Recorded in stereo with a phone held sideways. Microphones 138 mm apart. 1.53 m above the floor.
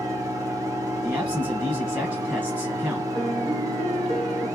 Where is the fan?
25° right (ahead or behind), 1.0 m.